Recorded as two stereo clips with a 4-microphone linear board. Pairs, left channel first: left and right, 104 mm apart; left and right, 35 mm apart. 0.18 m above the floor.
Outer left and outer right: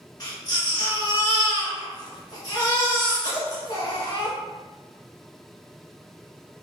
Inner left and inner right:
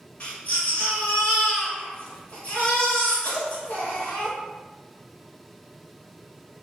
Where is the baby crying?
50° left (ahead or behind), 1.2 m.